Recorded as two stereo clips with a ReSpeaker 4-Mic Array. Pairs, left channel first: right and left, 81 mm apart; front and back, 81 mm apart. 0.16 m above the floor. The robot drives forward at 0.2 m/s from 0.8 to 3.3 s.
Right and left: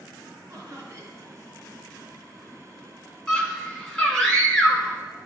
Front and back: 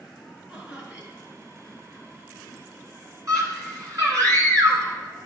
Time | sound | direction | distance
0.5 | laughter | 120° left | 1.8 m
3.3 | a scream | 165° right | 1.8 m